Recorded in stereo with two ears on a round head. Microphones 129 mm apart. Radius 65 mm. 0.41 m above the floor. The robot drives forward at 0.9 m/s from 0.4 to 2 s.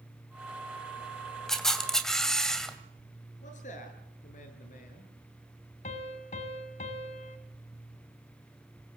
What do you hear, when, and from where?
1.5 s a camera shutter: 5° left (ahead or behind), 2.5 m
3.4 s a man speaking: 65° left (ahead or behind), 8.5 m
5.8 s a piano: 50° left (ahead or behind), 2.5 m